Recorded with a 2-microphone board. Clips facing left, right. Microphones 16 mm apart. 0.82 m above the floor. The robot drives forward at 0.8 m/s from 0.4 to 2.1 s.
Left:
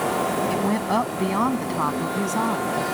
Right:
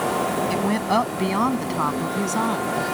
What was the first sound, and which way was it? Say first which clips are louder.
A woman speaking: right 1 dB; 30° right (ahead or behind).